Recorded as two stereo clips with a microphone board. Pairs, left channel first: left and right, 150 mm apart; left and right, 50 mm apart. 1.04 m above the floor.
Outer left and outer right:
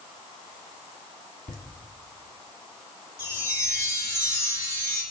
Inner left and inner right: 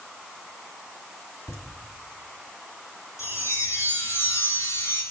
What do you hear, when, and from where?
1.5 s laughter: 70° left (ahead or behind), 2 m
3.2 s a chime: 75° left (ahead or behind), 3 m